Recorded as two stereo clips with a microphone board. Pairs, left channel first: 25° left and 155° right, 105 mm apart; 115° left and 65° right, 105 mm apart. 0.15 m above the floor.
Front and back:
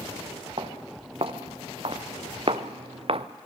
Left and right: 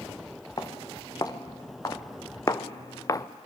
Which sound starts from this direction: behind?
Footsteps, at 0.6 s.